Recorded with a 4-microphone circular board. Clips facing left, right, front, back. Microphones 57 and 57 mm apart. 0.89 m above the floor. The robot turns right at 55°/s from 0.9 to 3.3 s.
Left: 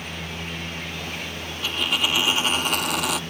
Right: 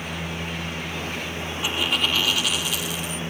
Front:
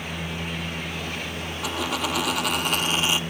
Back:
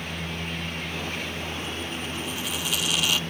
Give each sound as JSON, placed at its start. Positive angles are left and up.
{"t": 1.6, "sound": "a dropped coin", "azimuth_deg": -15}